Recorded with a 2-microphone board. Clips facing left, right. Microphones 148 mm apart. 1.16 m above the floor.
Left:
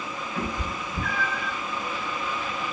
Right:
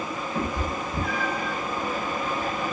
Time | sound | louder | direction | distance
0.3 | a cat meowing | right 3 dB | 35° right (ahead or behind) | 1.0 m